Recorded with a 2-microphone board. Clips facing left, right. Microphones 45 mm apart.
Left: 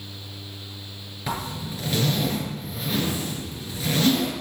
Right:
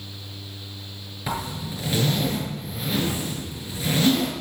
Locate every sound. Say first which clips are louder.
1.3 s a zipper: right 1 dB; 5° right (ahead or behind), 6 m